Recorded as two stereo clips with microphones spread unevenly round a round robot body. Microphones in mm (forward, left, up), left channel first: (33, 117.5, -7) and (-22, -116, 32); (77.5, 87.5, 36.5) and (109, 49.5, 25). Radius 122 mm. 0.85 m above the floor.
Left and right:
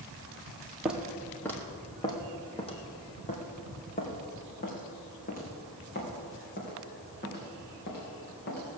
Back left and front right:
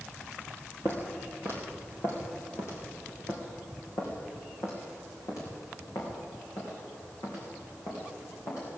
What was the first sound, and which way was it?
Footsteps, 175° left.